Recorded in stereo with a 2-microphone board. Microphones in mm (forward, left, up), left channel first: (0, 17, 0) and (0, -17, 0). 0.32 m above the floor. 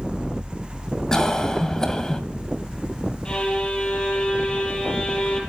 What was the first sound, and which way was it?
A cough, 20° left (ahead or behind).